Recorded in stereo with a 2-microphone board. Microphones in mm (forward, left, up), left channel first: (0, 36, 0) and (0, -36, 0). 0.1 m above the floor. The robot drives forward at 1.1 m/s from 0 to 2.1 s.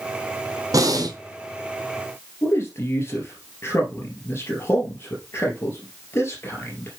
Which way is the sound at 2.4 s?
35° left (ahead or behind).